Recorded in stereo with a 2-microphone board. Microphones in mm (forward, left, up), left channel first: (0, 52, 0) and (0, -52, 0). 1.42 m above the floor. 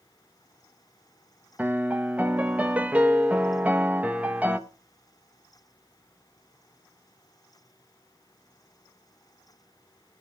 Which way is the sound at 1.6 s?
15° right (ahead or behind).